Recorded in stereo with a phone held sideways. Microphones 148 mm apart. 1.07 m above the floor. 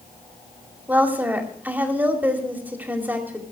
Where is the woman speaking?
10° right (ahead or behind), 2.5 m.